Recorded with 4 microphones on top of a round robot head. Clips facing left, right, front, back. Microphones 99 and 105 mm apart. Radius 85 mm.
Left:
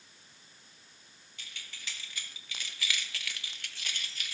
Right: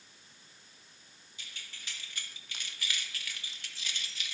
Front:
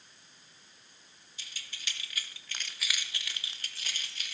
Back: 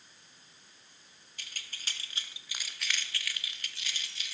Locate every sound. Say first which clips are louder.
1.4 s keys jangling: left 2 dB, back 1 dB; 145° left, 1.0 m; by 4.3 s 45° left, 1.2 m